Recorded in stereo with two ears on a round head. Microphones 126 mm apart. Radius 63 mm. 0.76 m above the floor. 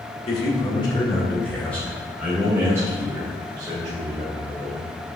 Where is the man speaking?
45° left (ahead or behind), 1.9 m; by 4.9 s 40° right (ahead or behind), 3.5 m.